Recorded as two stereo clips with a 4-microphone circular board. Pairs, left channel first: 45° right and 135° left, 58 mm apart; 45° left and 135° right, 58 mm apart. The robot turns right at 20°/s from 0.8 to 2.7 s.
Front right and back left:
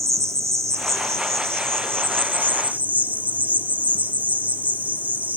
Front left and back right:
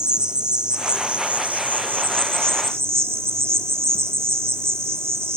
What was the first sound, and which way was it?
An insect, 150° left.